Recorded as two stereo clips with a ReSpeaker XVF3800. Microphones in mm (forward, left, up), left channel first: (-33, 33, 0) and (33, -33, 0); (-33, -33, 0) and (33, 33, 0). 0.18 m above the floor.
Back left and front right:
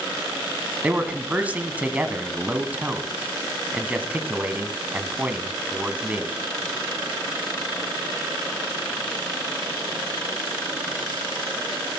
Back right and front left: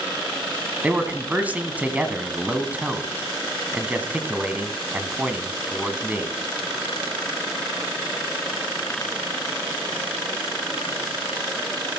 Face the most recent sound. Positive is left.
turn(degrees=0)